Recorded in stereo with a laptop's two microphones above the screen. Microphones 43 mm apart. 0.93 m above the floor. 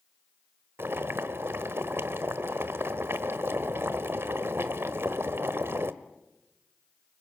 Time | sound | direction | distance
0.8 | boiling | 65° right (ahead or behind) | 1.2 m